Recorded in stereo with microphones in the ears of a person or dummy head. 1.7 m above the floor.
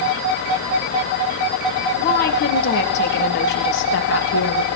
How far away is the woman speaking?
About 3 m.